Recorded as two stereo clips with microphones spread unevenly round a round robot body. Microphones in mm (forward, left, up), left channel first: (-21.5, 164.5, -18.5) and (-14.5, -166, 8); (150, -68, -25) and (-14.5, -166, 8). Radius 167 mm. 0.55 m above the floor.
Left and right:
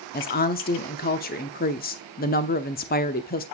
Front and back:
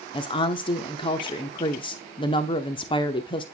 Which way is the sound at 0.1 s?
55° left.